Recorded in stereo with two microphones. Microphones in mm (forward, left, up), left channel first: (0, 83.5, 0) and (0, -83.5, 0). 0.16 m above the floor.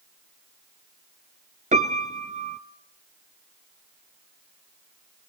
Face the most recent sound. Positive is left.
turn(degrees=-50)  # may be behind; listen again after turning